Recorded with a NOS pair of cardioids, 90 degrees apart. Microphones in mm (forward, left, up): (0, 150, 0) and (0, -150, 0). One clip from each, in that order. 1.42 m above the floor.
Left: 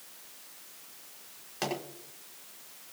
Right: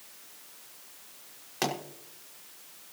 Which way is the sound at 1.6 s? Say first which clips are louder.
Right 3 dB; 40° right.